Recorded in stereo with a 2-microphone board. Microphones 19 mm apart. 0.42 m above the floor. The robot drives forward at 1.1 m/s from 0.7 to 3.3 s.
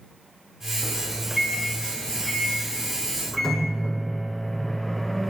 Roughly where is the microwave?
Centre.